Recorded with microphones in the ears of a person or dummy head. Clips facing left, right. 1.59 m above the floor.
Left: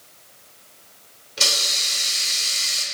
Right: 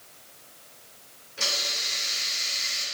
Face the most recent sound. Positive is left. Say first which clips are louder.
# left 4 dB
turn(degrees=85)